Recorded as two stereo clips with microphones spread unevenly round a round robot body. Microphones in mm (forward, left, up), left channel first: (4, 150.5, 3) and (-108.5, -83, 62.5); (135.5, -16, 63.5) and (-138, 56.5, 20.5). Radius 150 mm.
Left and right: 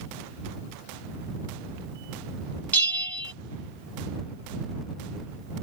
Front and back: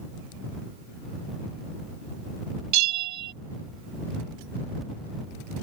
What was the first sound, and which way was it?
A bell, 145° left.